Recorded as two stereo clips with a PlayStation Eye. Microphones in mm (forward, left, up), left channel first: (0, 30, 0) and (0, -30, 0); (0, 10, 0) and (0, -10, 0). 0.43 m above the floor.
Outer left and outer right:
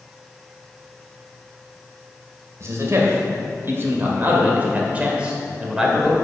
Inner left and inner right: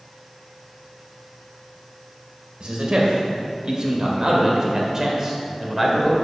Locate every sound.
2.6 s a man speaking: 55° right (ahead or behind), 2 m; by 6.1 s 5° right (ahead or behind), 1.9 m